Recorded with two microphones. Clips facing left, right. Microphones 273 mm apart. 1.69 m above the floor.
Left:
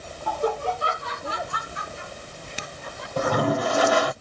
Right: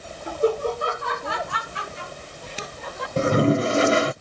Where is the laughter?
20° right (ahead or behind); by 3.1 s 90° right.